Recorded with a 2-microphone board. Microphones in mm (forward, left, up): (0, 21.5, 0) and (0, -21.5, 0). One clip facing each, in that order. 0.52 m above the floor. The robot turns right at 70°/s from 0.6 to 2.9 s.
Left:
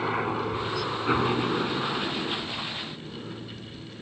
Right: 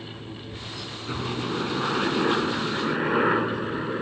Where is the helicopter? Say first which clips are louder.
Left 12 dB; 65° left (ahead or behind); by 4.0 s 75° right (ahead or behind).